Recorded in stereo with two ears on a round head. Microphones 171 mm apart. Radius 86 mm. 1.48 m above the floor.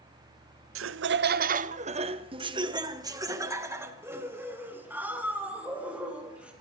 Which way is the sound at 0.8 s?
80° right.